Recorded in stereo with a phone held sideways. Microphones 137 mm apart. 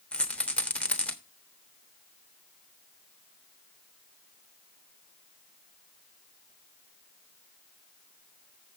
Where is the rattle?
5° left (ahead or behind), 1.1 m.